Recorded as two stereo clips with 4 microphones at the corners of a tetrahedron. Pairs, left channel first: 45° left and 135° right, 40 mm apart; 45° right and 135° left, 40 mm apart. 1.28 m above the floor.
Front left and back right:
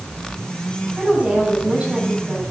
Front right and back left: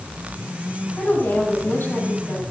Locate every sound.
1.0 s a woman speaking: 75° right, 7 m